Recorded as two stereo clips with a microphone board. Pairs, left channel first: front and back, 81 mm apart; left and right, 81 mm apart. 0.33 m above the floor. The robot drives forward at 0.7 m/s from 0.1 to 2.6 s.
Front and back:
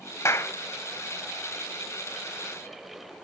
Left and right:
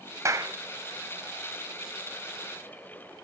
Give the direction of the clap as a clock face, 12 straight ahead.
2 o'clock.